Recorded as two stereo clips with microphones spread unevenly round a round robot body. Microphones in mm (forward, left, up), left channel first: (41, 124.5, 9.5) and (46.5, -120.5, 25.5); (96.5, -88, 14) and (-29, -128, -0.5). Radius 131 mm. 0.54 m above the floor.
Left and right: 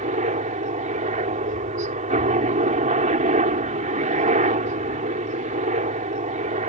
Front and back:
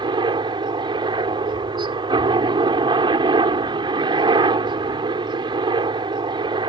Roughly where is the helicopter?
Behind right.